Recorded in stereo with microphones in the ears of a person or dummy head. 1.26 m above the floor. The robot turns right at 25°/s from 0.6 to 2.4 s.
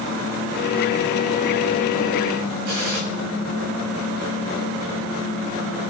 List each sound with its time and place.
2.7 s a gunshot: 70° right (ahead or behind), 6.5 m